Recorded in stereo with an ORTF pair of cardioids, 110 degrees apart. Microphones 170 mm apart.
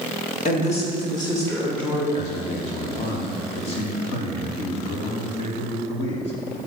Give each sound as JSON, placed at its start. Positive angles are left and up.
{"t": 0.5, "sound": "a woman speaking", "azimuth_deg": 50, "distance_m": 2.5}
{"t": 2.1, "sound": "a man speaking", "azimuth_deg": 35, "distance_m": 3.0}